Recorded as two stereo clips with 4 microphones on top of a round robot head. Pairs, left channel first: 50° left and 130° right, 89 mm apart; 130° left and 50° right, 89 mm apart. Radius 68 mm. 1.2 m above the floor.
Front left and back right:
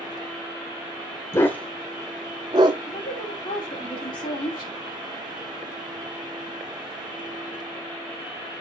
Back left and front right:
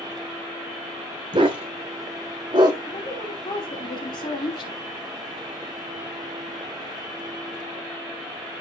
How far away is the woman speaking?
About 3.5 m.